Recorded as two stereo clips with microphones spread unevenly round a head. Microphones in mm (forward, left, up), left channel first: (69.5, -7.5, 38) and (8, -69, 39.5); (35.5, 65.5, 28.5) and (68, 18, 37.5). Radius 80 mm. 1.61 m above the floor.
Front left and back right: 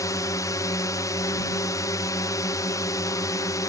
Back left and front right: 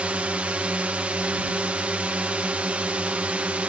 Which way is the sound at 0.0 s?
10° left.